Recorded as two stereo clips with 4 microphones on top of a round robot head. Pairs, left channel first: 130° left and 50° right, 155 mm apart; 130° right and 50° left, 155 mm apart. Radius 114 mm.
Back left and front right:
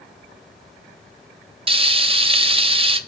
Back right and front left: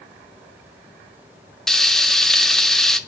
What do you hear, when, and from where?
1.7 s frying: 45° right, 0.7 m